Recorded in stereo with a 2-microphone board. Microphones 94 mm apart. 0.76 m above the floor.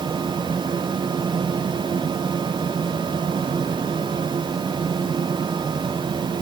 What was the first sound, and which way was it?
Only background noise.